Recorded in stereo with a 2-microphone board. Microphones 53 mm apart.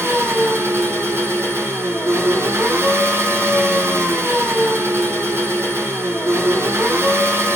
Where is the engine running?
55° right (ahead or behind), 1.3 m.